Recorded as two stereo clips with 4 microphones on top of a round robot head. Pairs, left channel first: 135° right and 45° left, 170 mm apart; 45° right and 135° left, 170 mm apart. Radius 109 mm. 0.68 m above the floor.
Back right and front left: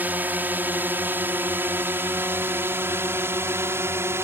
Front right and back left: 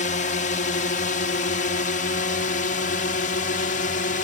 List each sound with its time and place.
0.0 s a drone: 30° right